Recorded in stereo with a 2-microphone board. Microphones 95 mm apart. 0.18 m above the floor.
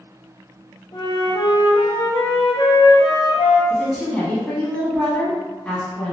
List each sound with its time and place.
0.9 s a flute: 70° left (ahead or behind), 1.1 m
3.7 s a woman speaking: 15° left (ahead or behind), 1.0 m